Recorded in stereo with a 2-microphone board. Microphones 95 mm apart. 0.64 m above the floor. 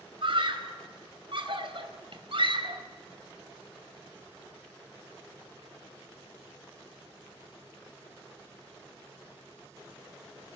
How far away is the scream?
About 4 m.